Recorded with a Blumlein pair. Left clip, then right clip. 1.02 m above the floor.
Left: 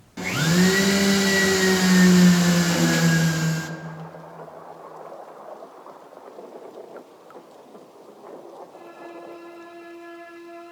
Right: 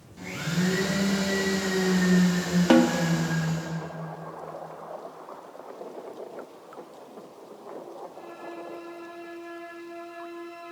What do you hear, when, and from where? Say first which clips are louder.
0.2 s a blender: left 9 dB; 55° left, 0.6 m
2.7 s a snare drum: right 1 dB; 50° right, 0.8 m